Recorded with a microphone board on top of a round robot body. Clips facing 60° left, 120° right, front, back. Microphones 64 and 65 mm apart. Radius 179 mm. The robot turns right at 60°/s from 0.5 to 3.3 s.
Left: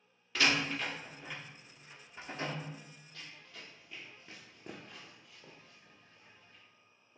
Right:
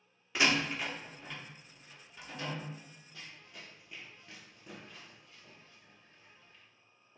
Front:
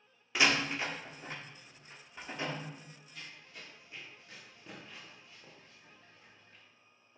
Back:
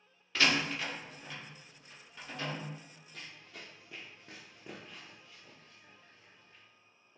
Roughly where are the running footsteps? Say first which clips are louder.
Right 1 dB, back 1 dB; behind.